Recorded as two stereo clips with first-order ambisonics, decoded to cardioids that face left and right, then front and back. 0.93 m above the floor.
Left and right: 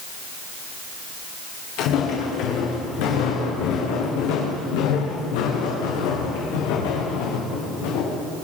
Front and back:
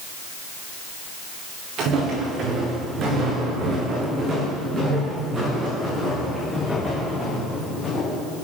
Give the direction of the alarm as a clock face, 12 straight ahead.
I don't hear an alarm.